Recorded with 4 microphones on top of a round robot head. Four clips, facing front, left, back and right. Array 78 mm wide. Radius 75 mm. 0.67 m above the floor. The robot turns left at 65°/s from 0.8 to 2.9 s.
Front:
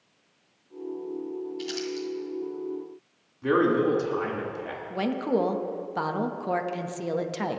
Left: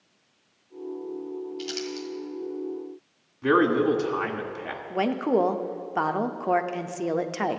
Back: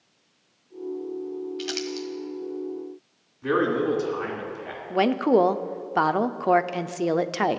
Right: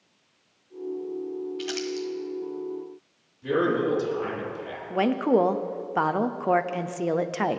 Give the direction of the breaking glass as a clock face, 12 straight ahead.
No breaking glass in this recording.